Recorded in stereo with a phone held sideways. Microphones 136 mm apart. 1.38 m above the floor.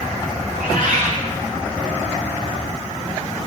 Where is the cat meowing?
75° right (ahead or behind), 2.5 m.